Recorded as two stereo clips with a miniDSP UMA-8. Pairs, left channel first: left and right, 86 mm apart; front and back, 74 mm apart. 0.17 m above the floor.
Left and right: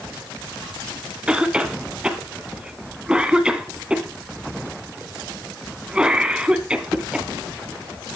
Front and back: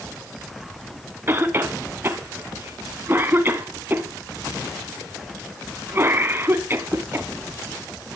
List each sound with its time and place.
1.3 s a cough: 160° right, 1.1 m